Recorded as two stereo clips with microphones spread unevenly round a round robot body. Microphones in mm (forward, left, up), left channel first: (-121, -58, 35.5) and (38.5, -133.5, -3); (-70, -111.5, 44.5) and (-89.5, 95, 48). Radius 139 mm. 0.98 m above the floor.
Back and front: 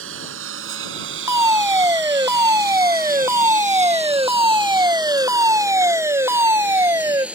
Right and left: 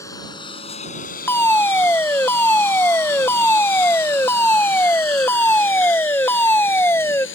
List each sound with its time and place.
0.0 s a lawn mower: 5° right; by 7.4 s 110° right
1.3 s a fire alarm: 20° right